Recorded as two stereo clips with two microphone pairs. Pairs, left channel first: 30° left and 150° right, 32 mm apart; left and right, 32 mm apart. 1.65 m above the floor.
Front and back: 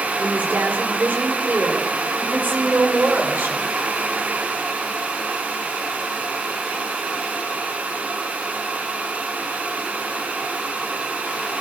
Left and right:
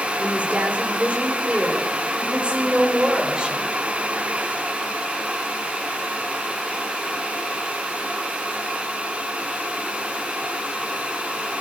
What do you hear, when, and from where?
0.2 s a woman speaking: 130° right, 5 m; by 3.7 s 150° right, 6 m